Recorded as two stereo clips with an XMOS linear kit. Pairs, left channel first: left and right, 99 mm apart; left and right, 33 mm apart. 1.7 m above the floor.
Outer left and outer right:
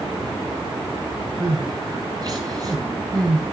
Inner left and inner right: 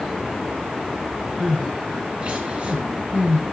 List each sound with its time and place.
1.4 s crying: 40° right (ahead or behind), 7 m